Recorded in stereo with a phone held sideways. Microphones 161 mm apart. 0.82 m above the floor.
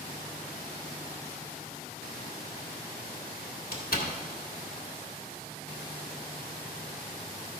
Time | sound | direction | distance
3.7 | a door slam | 70° left (ahead or behind) | 1.9 m